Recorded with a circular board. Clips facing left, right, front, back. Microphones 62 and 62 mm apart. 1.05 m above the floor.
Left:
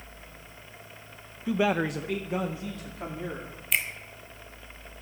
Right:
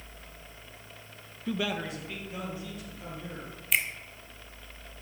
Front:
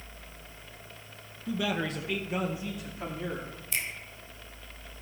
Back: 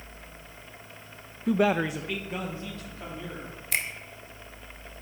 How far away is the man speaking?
About 0.6 m.